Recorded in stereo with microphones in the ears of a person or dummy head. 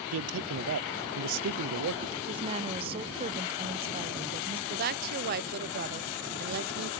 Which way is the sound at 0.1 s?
70° right (ahead or behind).